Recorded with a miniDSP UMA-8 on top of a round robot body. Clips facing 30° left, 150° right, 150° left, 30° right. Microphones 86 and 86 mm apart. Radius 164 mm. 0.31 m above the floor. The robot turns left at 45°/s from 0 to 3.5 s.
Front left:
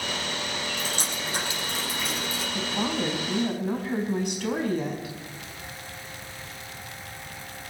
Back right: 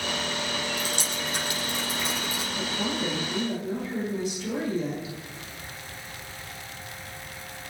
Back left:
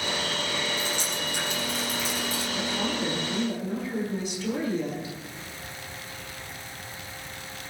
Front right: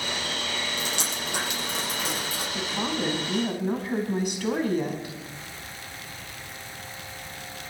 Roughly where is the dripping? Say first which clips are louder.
Back right 1 dB, back left 1 dB; ahead.